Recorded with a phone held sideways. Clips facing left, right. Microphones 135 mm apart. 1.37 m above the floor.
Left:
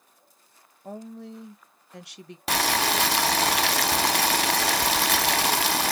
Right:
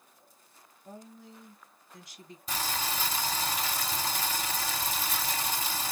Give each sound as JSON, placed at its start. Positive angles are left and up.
{"t": 0.8, "sound": "a woman speaking", "side_deg": 75, "distance_m": 1.6}
{"t": 2.5, "sound": "boiling", "side_deg": 75, "distance_m": 0.5}